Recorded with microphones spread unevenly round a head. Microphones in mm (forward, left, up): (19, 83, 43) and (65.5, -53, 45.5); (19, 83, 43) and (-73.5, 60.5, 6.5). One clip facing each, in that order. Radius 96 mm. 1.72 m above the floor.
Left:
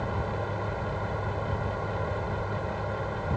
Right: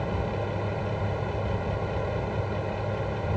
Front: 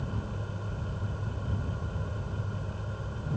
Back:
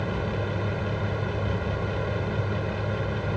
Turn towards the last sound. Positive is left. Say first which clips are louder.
# right 2 dB, back 9 dB
turn(degrees=-145)